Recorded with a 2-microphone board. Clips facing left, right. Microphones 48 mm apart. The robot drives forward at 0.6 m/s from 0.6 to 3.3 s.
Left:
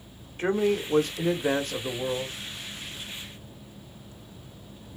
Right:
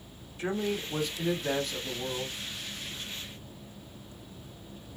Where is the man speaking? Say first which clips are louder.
Left 7 dB; 45° left (ahead or behind), 1.1 m.